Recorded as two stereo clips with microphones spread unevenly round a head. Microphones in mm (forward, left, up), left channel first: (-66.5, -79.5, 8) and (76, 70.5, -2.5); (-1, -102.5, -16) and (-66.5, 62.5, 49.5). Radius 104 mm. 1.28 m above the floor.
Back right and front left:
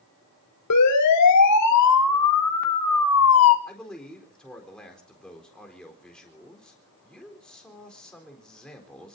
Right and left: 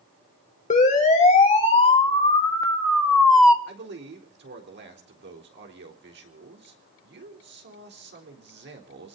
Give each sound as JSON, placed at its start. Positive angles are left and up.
{"t": 0.7, "sound": "a siren", "azimuth_deg": -120, "distance_m": 4.5}
{"t": 3.7, "sound": "a man speaking", "azimuth_deg": 140, "distance_m": 4.0}